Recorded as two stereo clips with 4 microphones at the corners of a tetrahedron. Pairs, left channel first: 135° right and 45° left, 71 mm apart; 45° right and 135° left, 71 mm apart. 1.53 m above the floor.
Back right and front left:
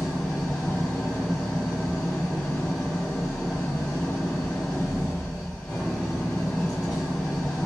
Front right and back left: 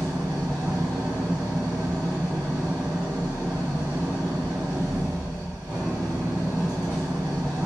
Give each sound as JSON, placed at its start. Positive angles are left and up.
{"t": 0.0, "sound": "an engine running", "azimuth_deg": 155, "distance_m": 1.5}